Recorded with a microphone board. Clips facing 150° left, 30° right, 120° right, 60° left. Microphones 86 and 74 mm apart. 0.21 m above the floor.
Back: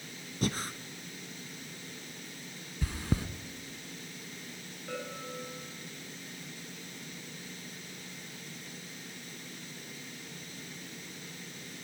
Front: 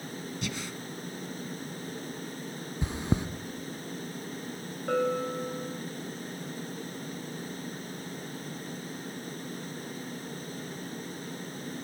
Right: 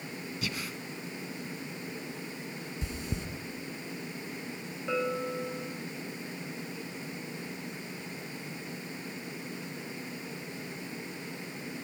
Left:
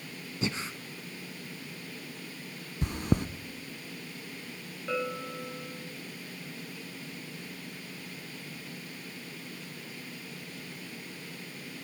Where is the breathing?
115° left, 1.1 m.